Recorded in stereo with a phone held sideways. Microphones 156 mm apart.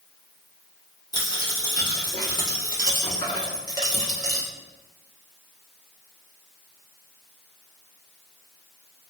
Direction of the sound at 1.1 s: 25° left (ahead or behind).